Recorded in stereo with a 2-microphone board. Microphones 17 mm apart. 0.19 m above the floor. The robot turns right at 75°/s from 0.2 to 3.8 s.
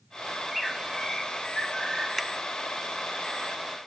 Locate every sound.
0.3 s a bird: 15° right, 0.8 m; by 2.1 s 115° left, 0.8 m
2.2 s a finger snap: 5° left (ahead or behind), 0.8 m; by 2.3 s centre (ahead or behind), 0.8 m